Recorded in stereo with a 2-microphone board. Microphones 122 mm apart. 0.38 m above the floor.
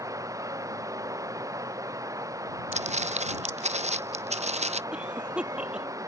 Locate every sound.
0.0 s running water: 25° right (ahead or behind)
2.7 s footsteps: 60° right (ahead or behind)
4.9 s a cough: 10° right (ahead or behind)